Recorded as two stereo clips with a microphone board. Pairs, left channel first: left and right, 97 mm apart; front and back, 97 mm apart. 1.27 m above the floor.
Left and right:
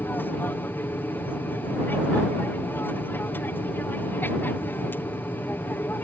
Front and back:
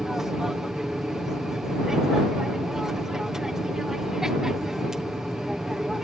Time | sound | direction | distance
0.0 | an aircraft | 105° left | ?